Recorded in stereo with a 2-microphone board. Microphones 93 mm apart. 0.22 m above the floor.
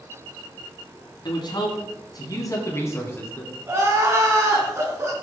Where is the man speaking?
55° left (ahead or behind), 2 m; by 3.6 s 20° left (ahead or behind), 2 m.